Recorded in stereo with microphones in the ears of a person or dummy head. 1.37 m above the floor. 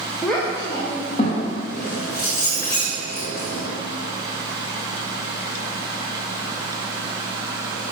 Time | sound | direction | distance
0.2 | a child speaking | 5° right (ahead or behind) | 0.8 m
1.7 | keys jangling | 55° left (ahead or behind) | 1.7 m